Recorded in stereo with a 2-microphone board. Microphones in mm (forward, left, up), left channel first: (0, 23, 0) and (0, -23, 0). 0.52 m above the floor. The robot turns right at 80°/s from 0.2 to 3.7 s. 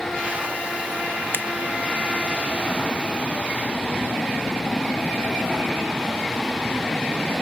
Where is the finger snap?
50° left (ahead or behind); by 1.4 s 60° left (ahead or behind).